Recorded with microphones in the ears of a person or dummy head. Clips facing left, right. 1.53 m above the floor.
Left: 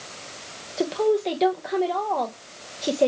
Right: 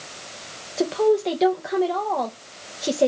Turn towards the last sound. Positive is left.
turn(degrees=-5)  # may be behind; listen again after turning